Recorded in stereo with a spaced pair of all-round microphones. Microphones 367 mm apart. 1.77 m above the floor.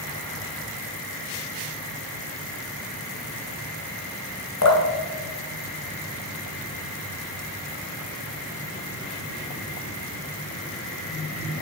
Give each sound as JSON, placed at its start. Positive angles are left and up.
{"t": 4.6, "sound": "dripping", "side_deg": 50, "distance_m": 1.8}